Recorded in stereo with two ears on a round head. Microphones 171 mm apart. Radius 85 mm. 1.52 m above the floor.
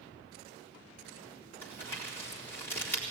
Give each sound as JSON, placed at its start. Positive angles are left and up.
{"t": 1.6, "sound": "crumpling", "side_deg": 10, "distance_m": 4.0}